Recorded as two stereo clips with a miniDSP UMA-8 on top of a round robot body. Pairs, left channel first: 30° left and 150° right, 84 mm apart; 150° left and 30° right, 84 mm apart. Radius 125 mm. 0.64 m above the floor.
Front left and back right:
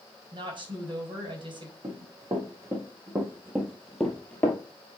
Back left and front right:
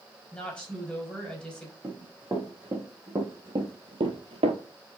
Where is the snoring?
No snoring in this recording.